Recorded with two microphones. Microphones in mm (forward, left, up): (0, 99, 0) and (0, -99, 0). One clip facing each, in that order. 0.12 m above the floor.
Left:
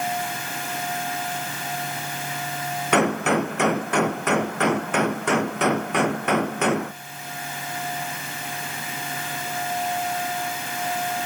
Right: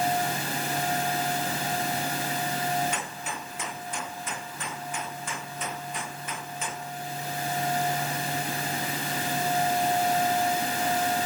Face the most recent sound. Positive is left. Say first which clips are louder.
# left 16 dB
turn(degrees=75)  # may be behind; listen again after turning